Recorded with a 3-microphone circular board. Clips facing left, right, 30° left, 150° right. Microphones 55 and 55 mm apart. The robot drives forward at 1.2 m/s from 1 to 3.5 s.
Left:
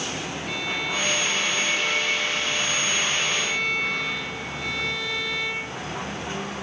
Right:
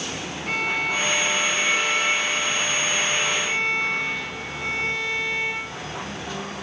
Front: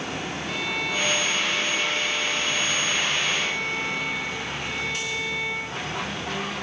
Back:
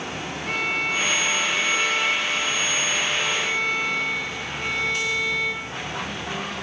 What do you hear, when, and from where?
0.5 s a violin: 115° right, 3.5 m; by 5.6 s 145° right, 5.5 m